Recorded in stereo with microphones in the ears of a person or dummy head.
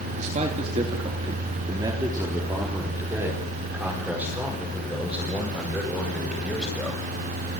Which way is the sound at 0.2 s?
35° right (ahead or behind).